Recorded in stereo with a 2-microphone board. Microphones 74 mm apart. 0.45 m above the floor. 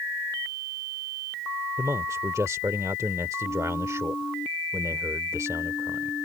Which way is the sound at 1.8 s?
45° right (ahead or behind).